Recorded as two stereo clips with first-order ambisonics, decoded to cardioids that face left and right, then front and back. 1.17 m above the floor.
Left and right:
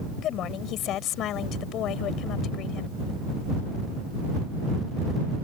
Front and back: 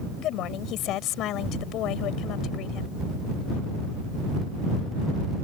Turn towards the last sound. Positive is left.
turn(degrees=45)